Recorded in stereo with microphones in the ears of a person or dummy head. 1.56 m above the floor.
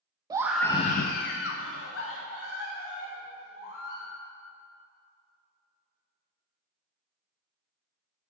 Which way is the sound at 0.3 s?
20° right (ahead or behind).